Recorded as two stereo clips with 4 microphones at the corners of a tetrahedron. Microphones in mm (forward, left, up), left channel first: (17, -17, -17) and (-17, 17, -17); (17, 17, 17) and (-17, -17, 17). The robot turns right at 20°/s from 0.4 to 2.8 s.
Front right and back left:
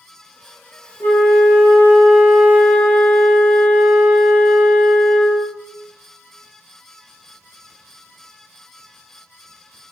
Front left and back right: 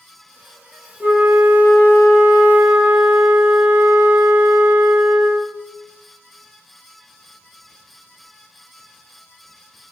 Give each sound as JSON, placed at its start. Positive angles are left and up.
{"t": 1.0, "sound": "a flute", "azimuth_deg": -85, "distance_m": 1.6}